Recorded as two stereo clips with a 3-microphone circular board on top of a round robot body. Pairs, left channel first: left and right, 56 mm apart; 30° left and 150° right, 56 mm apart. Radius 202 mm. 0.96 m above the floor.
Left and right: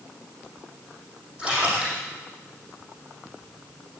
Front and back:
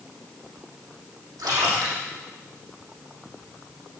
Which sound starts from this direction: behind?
A splash, at 1.4 s.